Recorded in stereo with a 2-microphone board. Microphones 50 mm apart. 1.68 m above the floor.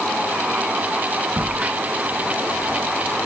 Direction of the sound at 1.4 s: 35° right (ahead or behind).